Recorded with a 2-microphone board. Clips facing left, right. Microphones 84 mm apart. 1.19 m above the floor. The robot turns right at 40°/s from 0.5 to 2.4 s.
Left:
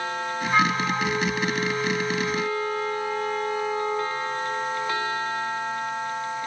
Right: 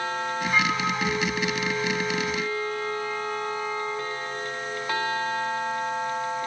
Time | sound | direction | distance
0.5 | a flute | 30° left | 6 m